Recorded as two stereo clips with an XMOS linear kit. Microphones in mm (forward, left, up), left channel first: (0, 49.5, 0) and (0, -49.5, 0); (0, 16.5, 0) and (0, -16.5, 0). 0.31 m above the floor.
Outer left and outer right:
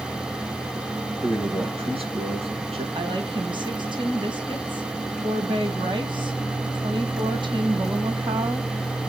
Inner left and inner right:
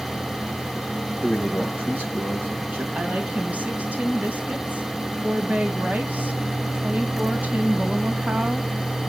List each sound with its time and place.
1.2 s a man speaking: 70° right (ahead or behind), 3 m
3.0 s a woman speaking: 55° right (ahead or behind), 2.0 m